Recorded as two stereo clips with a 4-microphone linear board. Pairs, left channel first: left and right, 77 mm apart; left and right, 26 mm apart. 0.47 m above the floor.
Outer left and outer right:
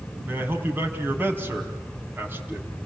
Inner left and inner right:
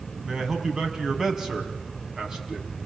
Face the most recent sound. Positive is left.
turn(degrees=-25)  # may be behind; listen again after turning